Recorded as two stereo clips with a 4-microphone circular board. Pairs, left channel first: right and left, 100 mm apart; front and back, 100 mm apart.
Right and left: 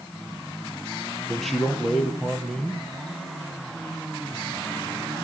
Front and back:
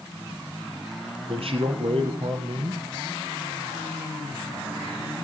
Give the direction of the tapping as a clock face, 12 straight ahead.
I don't hear tapping.